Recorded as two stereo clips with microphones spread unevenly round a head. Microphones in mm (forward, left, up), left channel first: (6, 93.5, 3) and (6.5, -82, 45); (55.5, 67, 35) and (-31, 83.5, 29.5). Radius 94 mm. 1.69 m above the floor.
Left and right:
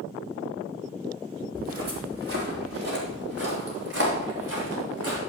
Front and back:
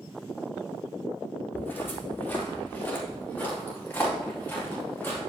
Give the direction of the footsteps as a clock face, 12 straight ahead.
3 o'clock.